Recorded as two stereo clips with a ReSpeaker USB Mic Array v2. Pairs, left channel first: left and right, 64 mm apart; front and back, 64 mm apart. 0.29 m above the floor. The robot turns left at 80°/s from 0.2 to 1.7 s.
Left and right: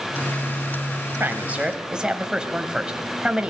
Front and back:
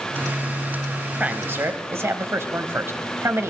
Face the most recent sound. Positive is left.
turn(degrees=-160)